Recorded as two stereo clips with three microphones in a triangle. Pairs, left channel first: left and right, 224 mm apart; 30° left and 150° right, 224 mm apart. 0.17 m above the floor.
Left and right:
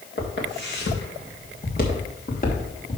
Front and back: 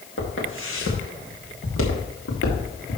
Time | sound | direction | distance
0.2 | footsteps | 60° left | 3.5 m